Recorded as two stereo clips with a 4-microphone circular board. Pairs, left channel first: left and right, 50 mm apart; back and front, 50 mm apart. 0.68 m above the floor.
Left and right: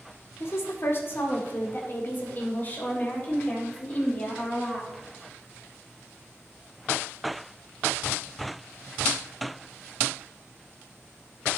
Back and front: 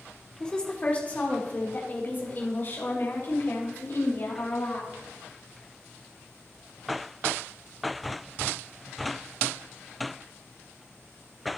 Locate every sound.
0.4 s a woman speaking: 105° left, 1.8 m; by 5.0 s 150° left, 4.5 m